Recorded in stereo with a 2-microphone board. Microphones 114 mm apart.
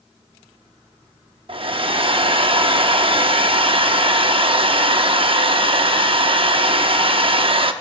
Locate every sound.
1.5 s a hair dryer: 50° right (ahead or behind), 0.6 m